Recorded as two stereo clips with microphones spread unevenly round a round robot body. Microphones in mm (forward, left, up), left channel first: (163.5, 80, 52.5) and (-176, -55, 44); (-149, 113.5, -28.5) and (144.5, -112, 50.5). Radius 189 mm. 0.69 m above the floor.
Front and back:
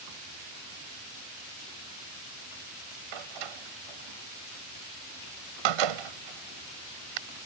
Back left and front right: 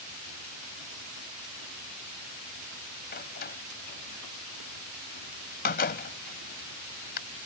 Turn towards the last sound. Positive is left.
turn(degrees=-150)